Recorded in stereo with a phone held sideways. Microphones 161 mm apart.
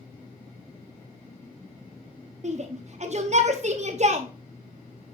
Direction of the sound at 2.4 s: 50° right (ahead or behind).